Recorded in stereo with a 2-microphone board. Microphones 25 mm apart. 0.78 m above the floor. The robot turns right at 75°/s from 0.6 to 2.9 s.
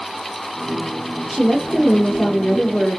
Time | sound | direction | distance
1.3 | a woman speaking | 15° right | 1.3 m